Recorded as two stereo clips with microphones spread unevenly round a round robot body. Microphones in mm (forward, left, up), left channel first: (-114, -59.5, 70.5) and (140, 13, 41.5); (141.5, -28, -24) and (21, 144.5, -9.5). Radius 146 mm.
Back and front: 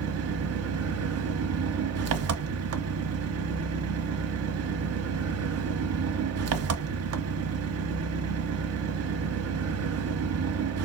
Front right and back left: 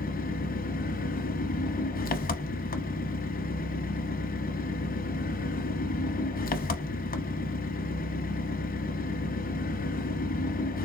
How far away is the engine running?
About 0.9 m.